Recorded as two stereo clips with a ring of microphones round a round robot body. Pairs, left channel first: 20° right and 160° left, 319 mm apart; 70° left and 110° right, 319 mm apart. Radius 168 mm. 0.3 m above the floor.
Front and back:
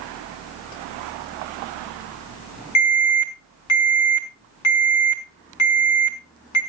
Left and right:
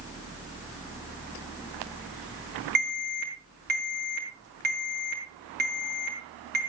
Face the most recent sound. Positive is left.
turn(degrees=-55)